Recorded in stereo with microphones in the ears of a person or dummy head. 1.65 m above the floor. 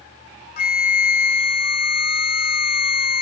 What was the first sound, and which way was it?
A flute, 50° left (ahead or behind).